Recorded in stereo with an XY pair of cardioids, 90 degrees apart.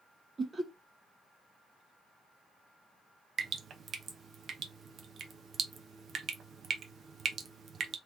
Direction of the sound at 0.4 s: 30° right.